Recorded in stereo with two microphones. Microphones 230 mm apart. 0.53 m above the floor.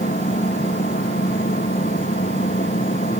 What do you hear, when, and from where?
0.0 s an engine running: 40° left (ahead or behind)